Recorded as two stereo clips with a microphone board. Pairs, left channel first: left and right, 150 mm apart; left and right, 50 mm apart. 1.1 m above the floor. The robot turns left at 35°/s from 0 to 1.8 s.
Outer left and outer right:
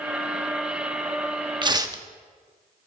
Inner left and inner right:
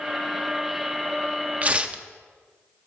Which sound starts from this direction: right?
Tearing paper, at 1.6 s.